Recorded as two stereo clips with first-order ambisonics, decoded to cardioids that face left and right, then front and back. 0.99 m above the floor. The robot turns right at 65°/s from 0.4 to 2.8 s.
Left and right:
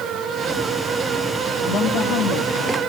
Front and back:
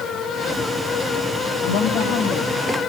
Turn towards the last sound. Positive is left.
turn(degrees=100)